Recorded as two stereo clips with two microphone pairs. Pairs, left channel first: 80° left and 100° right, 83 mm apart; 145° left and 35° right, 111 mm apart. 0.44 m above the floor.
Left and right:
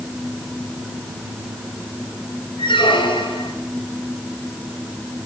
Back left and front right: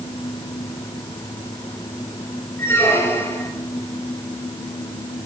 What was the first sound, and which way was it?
A squeak, 75° left.